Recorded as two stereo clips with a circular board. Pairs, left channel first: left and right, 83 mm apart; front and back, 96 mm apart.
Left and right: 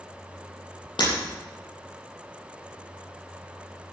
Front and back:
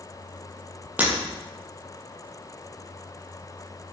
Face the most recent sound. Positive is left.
turn(degrees=105)